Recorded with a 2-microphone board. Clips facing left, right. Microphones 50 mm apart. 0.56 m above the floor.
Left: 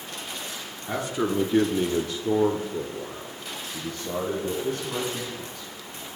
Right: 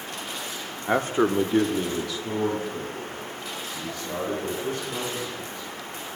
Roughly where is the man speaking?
Right.